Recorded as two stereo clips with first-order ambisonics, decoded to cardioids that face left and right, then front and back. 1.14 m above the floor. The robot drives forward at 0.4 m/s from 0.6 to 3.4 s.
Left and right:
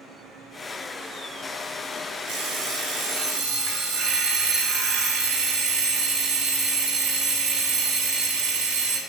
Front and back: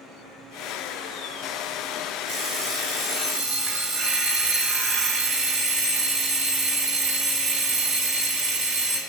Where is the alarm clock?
140° right, 4 m; by 9.0 s 145° right, 4.5 m.